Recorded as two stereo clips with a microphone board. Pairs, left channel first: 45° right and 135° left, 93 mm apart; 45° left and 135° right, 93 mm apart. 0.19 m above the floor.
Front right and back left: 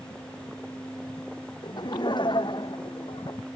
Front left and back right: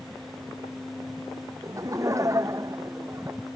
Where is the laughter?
85° right; by 3.4 s 80° right.